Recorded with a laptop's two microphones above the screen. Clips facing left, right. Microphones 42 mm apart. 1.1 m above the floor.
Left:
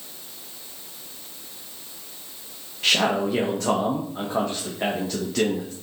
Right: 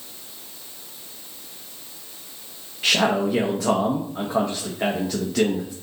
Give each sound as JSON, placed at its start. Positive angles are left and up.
{"t": 2.8, "sound": "a man speaking", "side_deg": -5, "distance_m": 0.7}